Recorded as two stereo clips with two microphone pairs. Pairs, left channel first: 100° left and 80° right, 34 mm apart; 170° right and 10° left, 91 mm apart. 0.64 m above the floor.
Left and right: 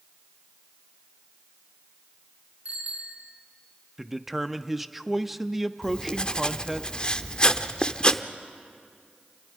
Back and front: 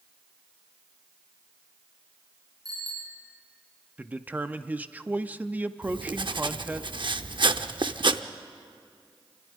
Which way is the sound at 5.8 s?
40° left.